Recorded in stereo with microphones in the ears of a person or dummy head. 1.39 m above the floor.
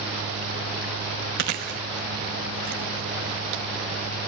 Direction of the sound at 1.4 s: 45° right (ahead or behind).